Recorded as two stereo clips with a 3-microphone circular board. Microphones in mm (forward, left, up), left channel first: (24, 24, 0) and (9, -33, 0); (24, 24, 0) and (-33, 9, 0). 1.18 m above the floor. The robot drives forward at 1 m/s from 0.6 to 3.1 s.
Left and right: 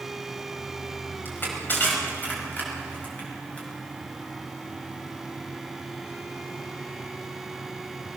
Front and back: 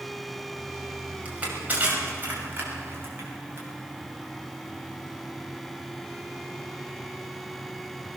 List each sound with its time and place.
1.2 s crushing: 130° left, 5.5 m; by 3.7 s 140° left, 6.5 m